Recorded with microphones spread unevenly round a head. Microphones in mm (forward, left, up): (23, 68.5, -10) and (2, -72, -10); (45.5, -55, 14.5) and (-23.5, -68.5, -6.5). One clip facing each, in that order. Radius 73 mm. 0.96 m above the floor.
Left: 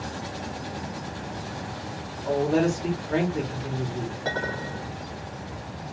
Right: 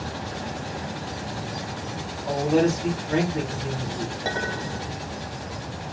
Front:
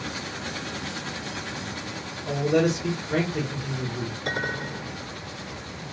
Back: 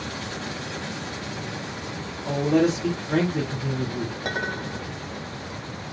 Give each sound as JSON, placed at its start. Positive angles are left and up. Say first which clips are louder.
{"t": 2.2, "sound": "a man speaking", "louder": "right 1 dB, back 2 dB", "azimuth_deg": -170, "distance_m": 3.0}
{"t": 4.2, "sound": "a clink", "louder": "right 1 dB, front 2 dB", "azimuth_deg": -165, "distance_m": 2.0}